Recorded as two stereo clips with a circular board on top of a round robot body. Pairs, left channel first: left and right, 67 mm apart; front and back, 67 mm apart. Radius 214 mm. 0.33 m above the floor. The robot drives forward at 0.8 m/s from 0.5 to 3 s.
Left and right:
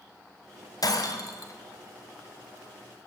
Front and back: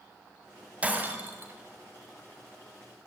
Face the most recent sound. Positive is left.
turn(degrees=140)